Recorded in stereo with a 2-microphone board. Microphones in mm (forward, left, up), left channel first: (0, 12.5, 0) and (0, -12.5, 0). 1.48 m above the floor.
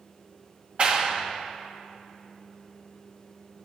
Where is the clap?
45° right (ahead or behind), 1.5 m.